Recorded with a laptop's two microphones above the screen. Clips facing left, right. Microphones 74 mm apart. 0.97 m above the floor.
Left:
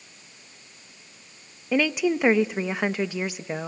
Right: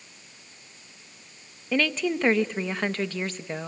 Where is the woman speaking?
10° left (ahead or behind), 0.6 m.